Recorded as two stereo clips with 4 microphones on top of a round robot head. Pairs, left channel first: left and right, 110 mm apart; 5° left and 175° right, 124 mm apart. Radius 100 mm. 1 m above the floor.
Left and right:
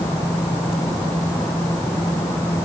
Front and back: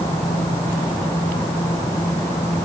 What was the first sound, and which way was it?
Only background noise.